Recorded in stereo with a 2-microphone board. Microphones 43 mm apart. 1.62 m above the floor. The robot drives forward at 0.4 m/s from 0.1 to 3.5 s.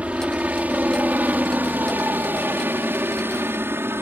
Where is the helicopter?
30° right (ahead or behind); by 4.0 s 60° right (ahead or behind).